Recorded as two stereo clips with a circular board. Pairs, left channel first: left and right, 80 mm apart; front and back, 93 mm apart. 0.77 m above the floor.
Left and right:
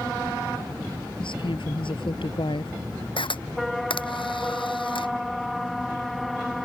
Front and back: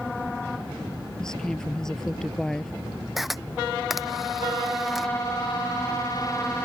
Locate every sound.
1.2 s a woman speaking: 85° left
3.2 s a camera shutter: 95° left